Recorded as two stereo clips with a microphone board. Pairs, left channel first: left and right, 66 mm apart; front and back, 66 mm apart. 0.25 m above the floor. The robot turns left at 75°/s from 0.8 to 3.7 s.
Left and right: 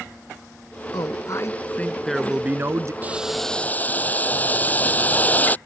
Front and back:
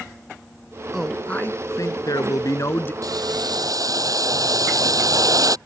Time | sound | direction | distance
0.9 | a man speaking | 95° left | ?
3.0 | boiling | 155° right | ?